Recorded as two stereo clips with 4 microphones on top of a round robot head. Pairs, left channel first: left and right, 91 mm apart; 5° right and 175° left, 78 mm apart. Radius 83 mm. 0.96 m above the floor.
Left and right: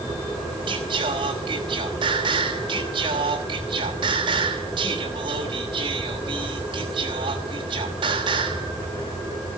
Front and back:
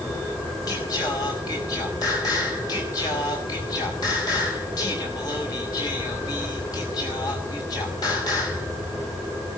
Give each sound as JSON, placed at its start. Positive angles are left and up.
{"t": 0.7, "sound": "singing", "azimuth_deg": -50, "distance_m": 5.0}